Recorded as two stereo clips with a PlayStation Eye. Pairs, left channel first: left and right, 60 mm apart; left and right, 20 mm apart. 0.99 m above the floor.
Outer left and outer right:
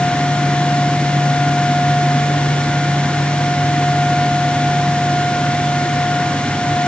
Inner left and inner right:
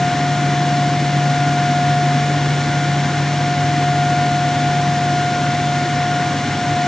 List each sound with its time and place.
Only background noise.